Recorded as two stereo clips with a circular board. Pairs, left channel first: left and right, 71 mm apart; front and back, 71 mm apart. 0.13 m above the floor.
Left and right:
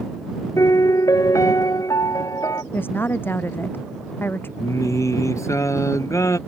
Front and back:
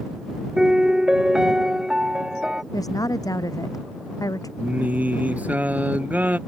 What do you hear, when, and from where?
0.6 s a piano: 100° left
2.7 s a woman speaking: 30° left
4.6 s singing: 115° left